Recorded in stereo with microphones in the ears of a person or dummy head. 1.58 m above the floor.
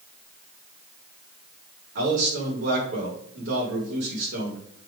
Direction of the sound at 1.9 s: 75° right (ahead or behind).